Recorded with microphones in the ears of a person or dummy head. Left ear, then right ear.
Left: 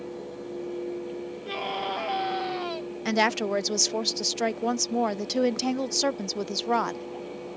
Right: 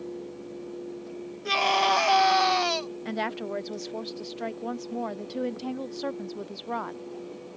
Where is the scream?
35° right (ahead or behind).